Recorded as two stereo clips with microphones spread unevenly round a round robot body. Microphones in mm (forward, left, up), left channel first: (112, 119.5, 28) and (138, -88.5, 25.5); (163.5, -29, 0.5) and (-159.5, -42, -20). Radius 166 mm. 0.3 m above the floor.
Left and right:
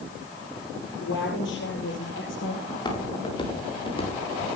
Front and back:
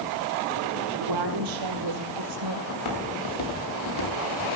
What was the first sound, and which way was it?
A woman speaking, 155° left.